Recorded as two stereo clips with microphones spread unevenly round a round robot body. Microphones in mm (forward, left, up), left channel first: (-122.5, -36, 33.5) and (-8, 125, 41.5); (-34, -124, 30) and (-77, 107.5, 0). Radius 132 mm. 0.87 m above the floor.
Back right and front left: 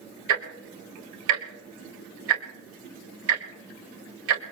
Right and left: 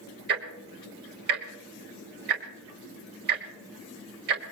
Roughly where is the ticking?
Ahead left.